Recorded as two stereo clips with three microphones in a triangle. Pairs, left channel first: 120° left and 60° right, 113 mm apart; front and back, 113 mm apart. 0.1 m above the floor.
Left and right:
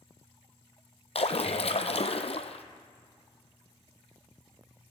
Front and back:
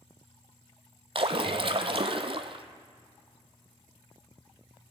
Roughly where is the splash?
Behind left.